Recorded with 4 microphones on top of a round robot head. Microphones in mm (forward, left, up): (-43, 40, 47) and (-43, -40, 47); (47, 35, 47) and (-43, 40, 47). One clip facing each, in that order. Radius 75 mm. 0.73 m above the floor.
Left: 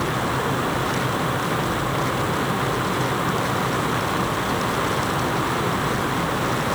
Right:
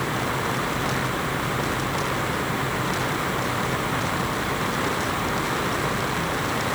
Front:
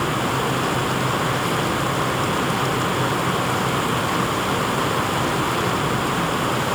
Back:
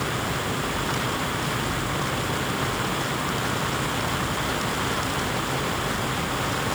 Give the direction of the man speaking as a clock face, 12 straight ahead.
No man speaking in this recording.